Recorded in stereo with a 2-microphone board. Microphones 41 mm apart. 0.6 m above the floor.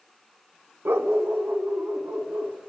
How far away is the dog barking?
About 0.6 m.